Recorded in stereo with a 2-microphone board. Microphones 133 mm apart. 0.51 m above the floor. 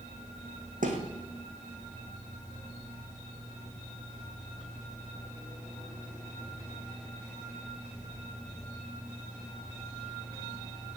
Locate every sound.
0.8 s a thud: 80° right, 3 m